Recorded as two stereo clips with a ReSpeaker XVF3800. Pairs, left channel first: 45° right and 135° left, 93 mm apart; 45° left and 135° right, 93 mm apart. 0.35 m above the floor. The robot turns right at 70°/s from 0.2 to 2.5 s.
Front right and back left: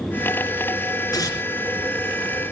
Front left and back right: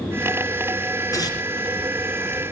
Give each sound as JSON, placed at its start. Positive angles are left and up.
{"t": 1.1, "sound": "tearing paper", "azimuth_deg": 0, "distance_m": 3.0}